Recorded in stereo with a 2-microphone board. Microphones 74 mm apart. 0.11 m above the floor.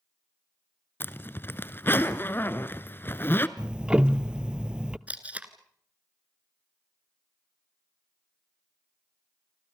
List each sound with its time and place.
1.0 s a zipper: 30° left (ahead or behind), 1.0 m
3.6 s ticking: 15° right (ahead or behind), 0.7 m
5.1 s tape being pulled: 20° right (ahead or behind), 1.6 m